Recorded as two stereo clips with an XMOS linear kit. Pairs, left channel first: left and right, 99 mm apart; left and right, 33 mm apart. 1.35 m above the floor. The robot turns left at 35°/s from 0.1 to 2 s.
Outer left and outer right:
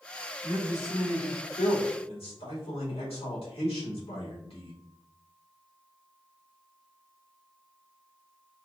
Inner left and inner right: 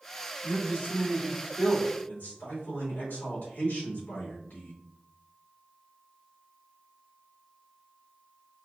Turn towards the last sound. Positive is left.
turn(degrees=95)